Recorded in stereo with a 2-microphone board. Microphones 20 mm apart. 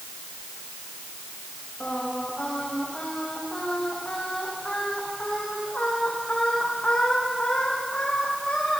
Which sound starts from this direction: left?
Singing, at 1.8 s.